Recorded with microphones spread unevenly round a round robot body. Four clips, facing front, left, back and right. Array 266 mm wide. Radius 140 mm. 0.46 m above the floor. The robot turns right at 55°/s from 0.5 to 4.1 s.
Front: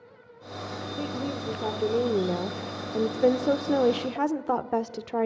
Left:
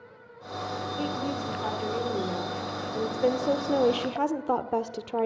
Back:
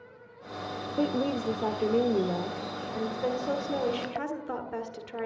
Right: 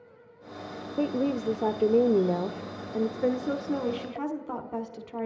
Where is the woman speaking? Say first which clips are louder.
Right 6 dB, back 5 dB; 135° right, 1.5 m; by 5.3 s 40° left, 1.5 m.